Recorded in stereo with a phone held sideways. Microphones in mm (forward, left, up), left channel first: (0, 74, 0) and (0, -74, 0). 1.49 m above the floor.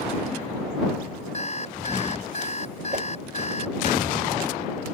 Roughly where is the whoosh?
Right.